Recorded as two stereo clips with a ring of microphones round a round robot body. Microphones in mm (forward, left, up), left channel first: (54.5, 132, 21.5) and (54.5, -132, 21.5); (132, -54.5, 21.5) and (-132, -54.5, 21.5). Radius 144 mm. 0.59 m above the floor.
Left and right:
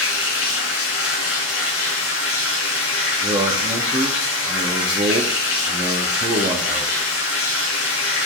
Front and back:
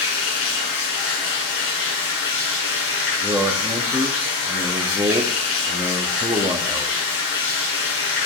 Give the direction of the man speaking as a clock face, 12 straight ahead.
4 o'clock.